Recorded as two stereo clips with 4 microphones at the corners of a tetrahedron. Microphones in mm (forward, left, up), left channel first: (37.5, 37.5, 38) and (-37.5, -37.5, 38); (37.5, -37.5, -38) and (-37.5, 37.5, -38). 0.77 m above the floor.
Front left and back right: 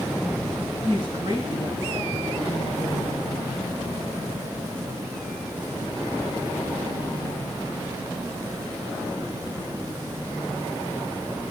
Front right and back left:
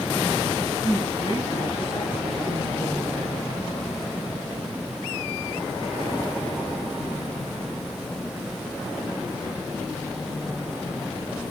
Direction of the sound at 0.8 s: 95° right.